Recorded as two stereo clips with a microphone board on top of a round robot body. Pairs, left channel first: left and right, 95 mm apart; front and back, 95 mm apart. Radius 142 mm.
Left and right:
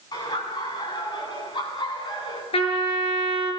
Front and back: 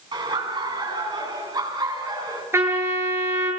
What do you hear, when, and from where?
0.1 s laughter: 140° left, 10 m; by 2.4 s 130° left, 11 m
2.5 s a trumpet: 115° left, 7.5 m